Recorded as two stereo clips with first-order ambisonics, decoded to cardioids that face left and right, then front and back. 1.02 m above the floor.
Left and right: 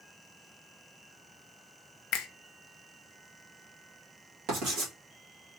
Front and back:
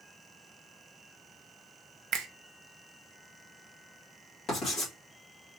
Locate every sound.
2.1 s a finger snap: 130° left, 0.6 m
4.5 s writing: 60° right, 1.5 m